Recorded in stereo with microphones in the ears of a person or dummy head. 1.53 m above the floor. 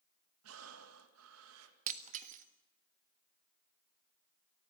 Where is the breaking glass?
35° right (ahead or behind), 1.4 m.